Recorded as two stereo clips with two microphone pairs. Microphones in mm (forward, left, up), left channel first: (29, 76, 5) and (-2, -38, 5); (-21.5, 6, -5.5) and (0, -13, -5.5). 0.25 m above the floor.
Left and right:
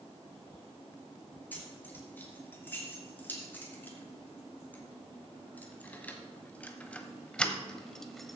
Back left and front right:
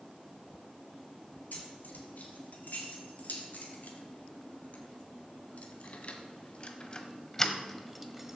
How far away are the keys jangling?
About 4 m.